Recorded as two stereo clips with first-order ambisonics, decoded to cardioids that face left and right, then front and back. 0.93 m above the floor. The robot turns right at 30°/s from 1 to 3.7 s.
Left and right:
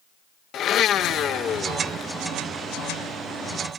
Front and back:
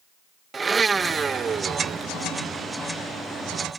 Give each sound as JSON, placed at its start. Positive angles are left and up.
{"t": 0.5, "sound": "a blender", "azimuth_deg": 115}